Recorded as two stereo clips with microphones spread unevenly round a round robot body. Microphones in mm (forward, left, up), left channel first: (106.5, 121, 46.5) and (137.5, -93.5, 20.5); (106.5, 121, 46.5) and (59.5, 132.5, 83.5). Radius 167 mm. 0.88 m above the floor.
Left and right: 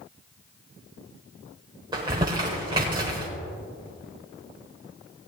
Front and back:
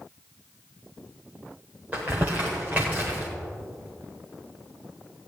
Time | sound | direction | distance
1.9 | crumpling | 160° right | 0.8 m